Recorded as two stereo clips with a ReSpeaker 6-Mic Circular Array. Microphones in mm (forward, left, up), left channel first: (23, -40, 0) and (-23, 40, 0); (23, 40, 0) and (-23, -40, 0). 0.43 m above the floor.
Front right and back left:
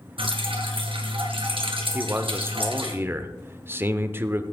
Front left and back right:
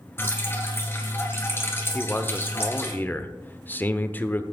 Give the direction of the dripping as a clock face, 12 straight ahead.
8 o'clock.